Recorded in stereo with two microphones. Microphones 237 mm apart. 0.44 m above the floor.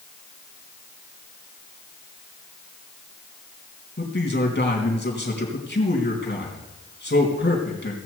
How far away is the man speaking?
About 3.5 m.